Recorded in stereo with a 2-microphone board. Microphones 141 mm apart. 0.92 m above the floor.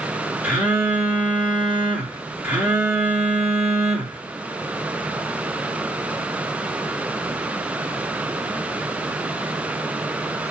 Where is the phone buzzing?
10° right (ahead or behind), 1.5 m.